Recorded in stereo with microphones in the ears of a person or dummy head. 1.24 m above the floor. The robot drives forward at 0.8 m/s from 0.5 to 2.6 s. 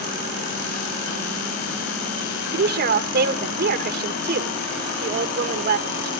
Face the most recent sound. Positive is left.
turn(degrees=-45)  # may be behind; listen again after turning